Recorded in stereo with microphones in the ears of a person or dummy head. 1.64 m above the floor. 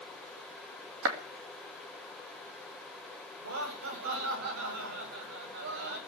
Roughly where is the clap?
Right.